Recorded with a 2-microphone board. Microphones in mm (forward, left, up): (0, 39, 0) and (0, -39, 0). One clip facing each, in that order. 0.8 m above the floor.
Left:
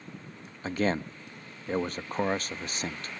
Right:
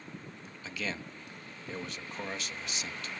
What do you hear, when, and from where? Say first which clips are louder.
0.6 s a man speaking: left 10 dB; 50° left (ahead or behind), 0.5 m